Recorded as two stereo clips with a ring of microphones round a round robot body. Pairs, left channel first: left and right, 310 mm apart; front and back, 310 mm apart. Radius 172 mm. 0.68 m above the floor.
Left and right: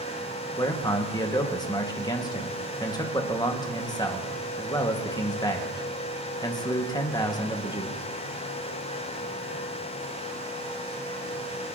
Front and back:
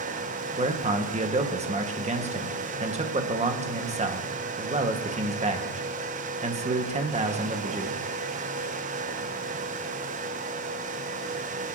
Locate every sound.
0.6 s a man speaking: 150° left, 1.2 m